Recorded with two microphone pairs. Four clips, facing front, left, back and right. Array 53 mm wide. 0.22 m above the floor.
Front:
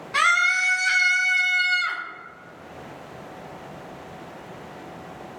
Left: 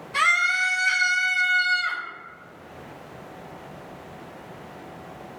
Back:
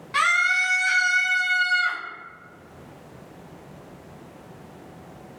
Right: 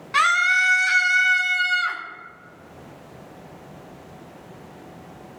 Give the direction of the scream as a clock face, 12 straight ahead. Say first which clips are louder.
Right 3 dB, front 1 dB; 3 o'clock.